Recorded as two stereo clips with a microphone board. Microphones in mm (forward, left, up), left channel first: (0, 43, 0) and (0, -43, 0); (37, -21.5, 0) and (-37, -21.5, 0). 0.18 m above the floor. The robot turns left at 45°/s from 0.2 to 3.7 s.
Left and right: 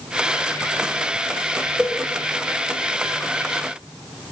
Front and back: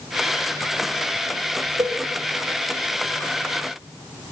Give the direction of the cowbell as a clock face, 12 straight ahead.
6 o'clock.